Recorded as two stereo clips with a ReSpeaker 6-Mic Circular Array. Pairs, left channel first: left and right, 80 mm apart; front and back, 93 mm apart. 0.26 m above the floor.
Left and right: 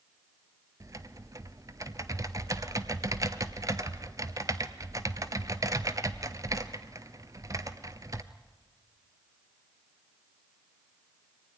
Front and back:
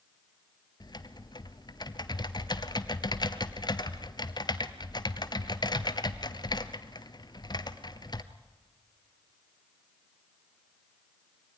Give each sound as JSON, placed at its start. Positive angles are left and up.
{"t": 0.8, "sound": "typing on a keyboard", "azimuth_deg": -40, "distance_m": 1.0}